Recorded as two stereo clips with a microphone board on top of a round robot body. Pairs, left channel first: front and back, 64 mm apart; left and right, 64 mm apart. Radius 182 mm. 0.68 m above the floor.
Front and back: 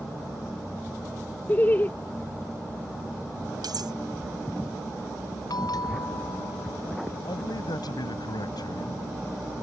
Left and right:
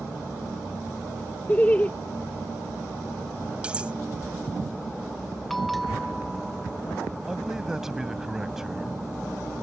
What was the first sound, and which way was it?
Laughter, 40° left.